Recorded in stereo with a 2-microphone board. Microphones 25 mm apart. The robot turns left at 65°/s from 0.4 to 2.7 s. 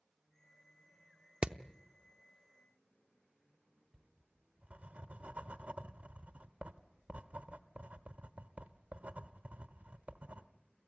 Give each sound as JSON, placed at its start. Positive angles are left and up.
{"t": 1.4, "sound": "hammering", "side_deg": -45, "distance_m": 0.6}
{"t": 3.9, "sound": "writing", "side_deg": -70, "distance_m": 1.0}